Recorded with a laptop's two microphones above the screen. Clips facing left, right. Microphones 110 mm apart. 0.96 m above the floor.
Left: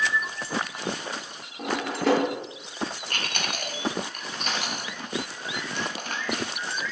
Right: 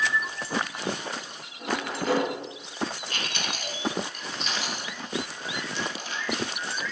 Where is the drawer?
85° left, 0.7 m.